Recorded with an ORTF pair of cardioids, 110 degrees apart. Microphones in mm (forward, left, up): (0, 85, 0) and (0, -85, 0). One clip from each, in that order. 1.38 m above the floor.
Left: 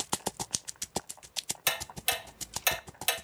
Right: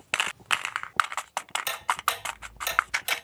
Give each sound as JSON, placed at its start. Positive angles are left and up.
{"t": 1.7, "sound": "ticking", "azimuth_deg": 15, "distance_m": 2.0}